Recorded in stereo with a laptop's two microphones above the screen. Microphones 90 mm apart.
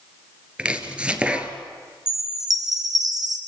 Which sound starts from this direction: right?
A chime, at 2.1 s.